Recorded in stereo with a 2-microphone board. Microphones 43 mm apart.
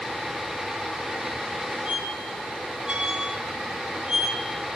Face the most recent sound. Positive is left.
turn(degrees=-20)  # may be behind; listen again after turning